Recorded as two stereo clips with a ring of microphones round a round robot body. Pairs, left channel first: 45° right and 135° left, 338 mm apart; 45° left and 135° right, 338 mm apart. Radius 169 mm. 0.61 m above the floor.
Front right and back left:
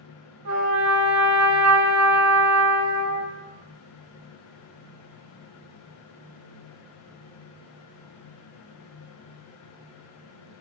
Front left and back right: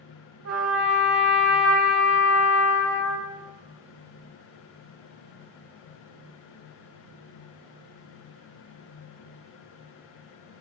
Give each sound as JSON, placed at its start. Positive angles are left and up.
{"t": 0.5, "sound": "a trumpet", "azimuth_deg": 180, "distance_m": 0.8}